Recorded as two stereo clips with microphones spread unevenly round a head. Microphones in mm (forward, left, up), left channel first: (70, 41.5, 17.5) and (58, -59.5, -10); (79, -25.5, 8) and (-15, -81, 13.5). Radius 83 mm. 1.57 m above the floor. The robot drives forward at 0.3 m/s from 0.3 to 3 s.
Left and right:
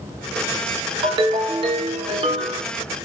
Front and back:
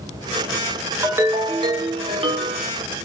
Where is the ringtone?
115° right, 0.5 m; by 2.7 s 160° right, 0.8 m.